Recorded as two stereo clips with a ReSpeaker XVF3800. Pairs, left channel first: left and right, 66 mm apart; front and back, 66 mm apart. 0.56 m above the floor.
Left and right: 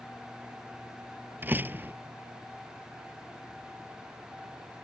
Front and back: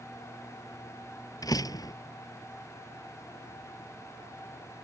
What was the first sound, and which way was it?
A door slam, 30° right.